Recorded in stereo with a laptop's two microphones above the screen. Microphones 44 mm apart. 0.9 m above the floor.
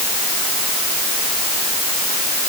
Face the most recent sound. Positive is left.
No sound to turn to.